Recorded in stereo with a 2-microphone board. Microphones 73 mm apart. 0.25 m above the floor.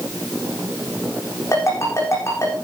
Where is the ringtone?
40° left (ahead or behind), 9 m.